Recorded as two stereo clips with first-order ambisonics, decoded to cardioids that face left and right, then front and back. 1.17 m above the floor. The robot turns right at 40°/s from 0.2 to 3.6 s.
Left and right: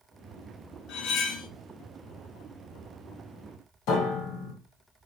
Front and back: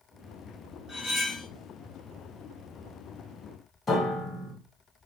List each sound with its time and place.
0.9 s cutlery clinking: 60° left, 0.6 m; by 1.5 s 85° left, 0.6 m
3.9 s a piano: 75° left, 1.8 m